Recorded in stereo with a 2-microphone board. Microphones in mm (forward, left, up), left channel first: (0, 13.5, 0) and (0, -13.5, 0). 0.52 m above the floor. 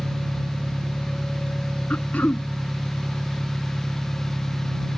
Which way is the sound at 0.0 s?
75° right (ahead or behind).